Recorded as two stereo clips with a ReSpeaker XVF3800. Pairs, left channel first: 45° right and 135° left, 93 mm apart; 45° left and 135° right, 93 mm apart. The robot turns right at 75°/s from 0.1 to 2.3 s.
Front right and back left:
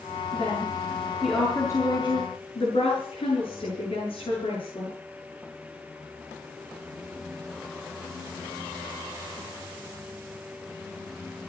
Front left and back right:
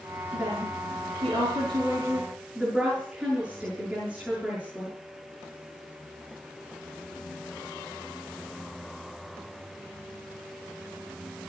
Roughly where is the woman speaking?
Behind.